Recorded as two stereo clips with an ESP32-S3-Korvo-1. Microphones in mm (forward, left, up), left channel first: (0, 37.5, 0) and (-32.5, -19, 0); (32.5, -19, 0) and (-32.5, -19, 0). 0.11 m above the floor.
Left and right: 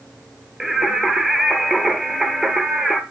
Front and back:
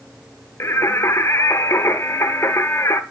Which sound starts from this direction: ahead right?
Singing, at 0.6 s.